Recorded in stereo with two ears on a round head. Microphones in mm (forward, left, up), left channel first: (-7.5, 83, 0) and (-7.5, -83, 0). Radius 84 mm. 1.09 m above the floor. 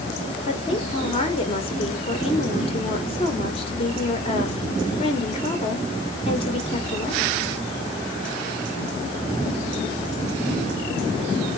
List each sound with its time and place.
0.5 s a woman speaking: 30° left (ahead or behind), 1.1 m